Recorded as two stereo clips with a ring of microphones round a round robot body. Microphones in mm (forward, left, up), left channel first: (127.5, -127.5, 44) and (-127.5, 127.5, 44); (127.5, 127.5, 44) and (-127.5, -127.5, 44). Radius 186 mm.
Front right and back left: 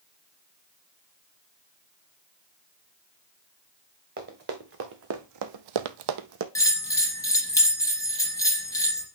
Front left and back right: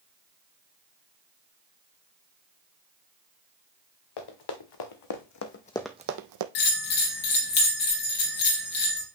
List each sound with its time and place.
4.2 s running footsteps: 70° left, 1.9 m; by 6.5 s 165° right, 0.8 m
6.5 s a bell: 35° left, 2 m